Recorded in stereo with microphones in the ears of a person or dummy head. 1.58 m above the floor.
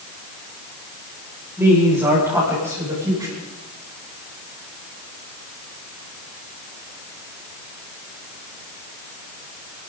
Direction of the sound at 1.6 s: 10° right (ahead or behind).